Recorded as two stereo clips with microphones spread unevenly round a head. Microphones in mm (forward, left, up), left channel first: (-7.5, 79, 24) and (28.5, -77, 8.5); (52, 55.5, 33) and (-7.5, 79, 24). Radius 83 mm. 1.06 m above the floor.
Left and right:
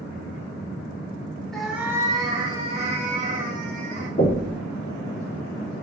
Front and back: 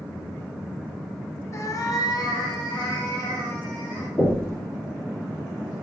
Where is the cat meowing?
15° left, 0.7 m; by 4.1 s 35° right, 1.7 m.